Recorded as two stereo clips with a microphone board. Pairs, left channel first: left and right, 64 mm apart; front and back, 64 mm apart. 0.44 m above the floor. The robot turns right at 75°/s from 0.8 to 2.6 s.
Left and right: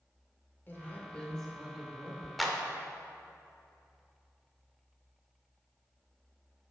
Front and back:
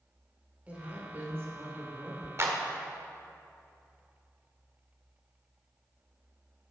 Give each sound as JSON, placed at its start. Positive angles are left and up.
{"t": 0.7, "sound": "a woman speaking", "azimuth_deg": 125, "distance_m": 1.4}
{"t": 2.4, "sound": "a clap", "azimuth_deg": 180, "distance_m": 0.8}